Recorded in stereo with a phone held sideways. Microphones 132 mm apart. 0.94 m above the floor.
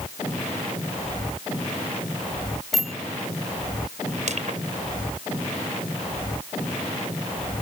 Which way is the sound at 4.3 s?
60° right (ahead or behind).